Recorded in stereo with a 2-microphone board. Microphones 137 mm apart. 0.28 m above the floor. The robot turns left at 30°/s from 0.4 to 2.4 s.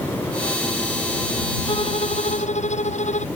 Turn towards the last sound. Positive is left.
turn(degrees=65)  # may be behind; listen again after turning